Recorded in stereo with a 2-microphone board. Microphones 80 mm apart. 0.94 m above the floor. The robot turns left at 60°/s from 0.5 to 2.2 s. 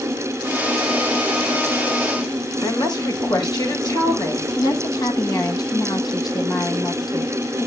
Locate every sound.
2.6 s a woman speaking: 60° left (ahead or behind), 3 m
4.6 s a woman speaking: 50° left (ahead or behind), 1.3 m